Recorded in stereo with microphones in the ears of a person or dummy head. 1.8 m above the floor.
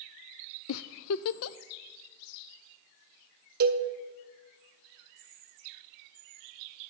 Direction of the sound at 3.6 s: 55° right (ahead or behind).